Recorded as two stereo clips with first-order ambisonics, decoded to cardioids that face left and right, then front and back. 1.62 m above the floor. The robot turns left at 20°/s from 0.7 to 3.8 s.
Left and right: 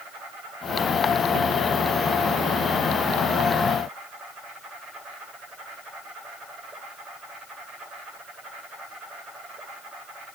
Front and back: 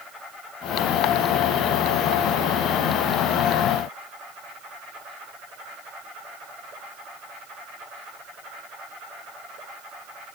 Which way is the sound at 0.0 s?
95° right.